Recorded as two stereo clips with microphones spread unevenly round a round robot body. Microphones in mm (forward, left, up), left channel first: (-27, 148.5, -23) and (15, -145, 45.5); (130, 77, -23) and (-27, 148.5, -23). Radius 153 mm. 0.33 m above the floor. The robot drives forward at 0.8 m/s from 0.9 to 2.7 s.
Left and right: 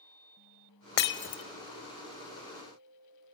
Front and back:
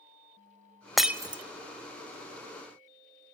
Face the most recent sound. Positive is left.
turn(degrees=160)